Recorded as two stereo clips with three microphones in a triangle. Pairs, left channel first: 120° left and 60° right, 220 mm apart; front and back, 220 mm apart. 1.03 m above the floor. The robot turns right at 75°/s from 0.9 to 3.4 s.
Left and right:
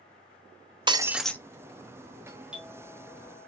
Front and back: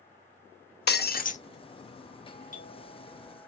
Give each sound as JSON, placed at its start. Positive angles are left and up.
{"t": 0.9, "sound": "breaking glass", "azimuth_deg": 5, "distance_m": 0.5}
{"t": 2.3, "sound": "a doorbell", "azimuth_deg": 5, "distance_m": 0.9}